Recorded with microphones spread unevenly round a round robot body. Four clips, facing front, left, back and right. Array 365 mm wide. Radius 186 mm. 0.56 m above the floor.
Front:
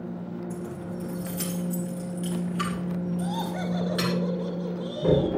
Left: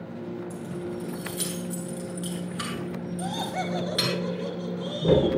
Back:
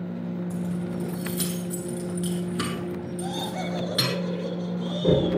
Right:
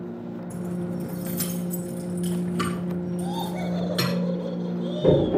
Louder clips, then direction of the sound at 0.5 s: Right 3 dB, back 4 dB; 135° right.